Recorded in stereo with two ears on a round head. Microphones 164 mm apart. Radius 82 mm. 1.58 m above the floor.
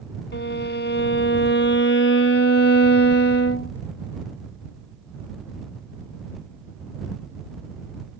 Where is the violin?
65° left (ahead or behind).